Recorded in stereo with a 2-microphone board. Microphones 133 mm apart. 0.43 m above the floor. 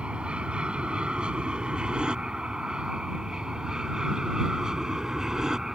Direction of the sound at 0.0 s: 10° right (ahead or behind).